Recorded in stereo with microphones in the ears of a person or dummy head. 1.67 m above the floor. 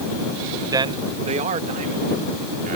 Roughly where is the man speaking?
Centre.